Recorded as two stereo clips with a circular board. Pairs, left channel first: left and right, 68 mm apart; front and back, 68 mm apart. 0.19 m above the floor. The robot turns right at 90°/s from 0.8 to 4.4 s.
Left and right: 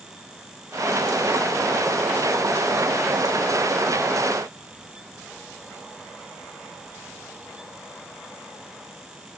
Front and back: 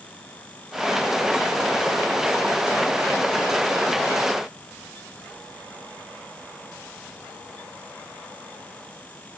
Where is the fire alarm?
I don't hear a fire alarm.